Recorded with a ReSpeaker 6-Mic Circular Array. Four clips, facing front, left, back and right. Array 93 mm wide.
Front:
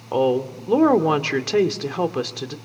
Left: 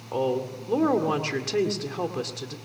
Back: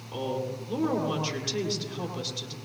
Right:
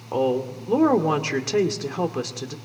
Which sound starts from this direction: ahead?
A woman speaking, at 0.1 s.